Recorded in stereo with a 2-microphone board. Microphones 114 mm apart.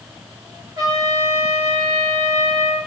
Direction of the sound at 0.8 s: 35° right (ahead or behind).